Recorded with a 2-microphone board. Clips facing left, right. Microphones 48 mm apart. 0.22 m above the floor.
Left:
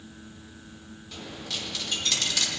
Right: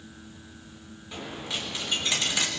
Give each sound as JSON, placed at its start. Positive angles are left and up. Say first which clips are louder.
{"t": 1.1, "sound": "a dropped coin", "louder": "right 3 dB", "side_deg": -25, "distance_m": 6.0}